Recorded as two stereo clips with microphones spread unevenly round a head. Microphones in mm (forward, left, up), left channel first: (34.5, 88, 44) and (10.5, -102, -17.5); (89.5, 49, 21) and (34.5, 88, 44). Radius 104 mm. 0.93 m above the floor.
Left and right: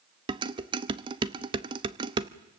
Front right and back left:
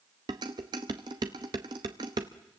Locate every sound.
0.3 s dishes clattering: 160° right, 0.7 m